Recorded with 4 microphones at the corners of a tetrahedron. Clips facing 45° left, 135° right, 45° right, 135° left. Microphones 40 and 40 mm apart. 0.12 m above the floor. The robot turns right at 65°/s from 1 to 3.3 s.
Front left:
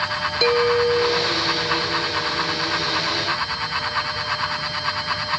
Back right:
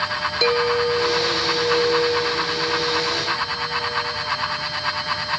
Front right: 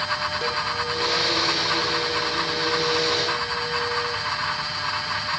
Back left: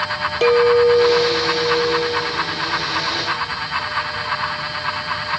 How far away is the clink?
About 1.4 m.